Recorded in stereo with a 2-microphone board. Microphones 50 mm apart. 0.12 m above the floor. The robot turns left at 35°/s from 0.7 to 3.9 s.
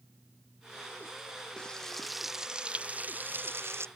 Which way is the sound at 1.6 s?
20° left.